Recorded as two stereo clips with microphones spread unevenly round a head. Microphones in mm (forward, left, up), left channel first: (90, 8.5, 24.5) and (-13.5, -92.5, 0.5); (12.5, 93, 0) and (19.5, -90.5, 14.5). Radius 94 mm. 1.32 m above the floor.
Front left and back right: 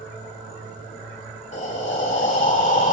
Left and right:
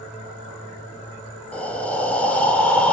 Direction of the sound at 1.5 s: 10° left.